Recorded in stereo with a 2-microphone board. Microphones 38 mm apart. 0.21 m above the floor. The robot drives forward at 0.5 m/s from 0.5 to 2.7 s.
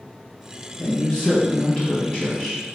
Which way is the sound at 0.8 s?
30° left (ahead or behind).